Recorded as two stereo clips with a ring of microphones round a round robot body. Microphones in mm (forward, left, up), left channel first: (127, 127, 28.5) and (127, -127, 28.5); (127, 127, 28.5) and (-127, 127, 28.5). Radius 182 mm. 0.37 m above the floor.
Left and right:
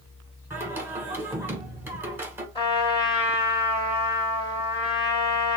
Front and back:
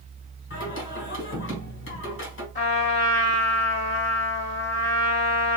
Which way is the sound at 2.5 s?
25° left.